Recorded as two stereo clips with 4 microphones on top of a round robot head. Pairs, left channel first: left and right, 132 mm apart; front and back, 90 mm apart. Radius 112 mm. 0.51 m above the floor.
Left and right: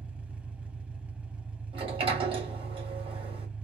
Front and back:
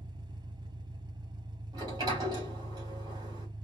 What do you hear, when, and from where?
0.0 s an engine running: 170° right, 1.1 m
1.7 s a sliding door: 135° right, 2.5 m